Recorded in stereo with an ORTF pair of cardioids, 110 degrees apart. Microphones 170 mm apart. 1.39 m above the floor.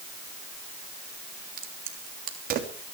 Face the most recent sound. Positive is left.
turn(degrees=-60)